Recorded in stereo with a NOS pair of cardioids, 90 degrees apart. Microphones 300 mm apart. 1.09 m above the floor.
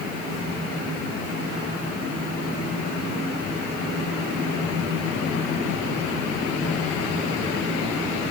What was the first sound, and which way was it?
Only background noise.